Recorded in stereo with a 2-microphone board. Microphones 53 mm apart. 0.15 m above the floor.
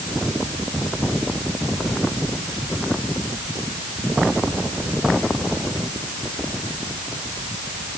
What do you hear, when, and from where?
Only background noise.